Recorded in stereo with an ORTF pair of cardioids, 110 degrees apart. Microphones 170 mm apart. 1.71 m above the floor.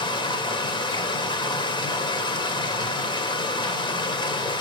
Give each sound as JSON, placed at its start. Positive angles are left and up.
{"t": 0.0, "sound": "running water", "azimuth_deg": 25, "distance_m": 1.3}